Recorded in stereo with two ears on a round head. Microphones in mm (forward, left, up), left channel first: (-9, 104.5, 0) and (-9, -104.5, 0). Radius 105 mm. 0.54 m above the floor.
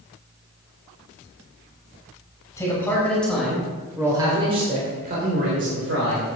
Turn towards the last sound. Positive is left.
turn(degrees=-65)  # may be behind; listen again after turning